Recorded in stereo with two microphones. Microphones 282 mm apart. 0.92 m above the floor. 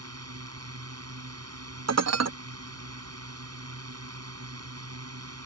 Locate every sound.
0.0 s a drone: 60° right (ahead or behind)
1.9 s dishes clattering: 65° right (ahead or behind)